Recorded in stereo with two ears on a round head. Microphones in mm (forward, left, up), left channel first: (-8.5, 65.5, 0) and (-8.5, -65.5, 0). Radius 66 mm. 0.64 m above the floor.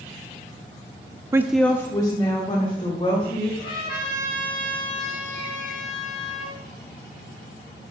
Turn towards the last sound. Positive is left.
turn(degrees=35)  # may be behind; listen again after turning